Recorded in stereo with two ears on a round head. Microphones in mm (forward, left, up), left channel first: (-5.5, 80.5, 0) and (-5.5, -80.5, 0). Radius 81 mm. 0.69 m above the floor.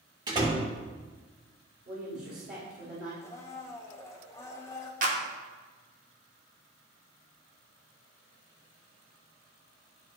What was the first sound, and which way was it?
A door slam, 20° right (ahead or behind).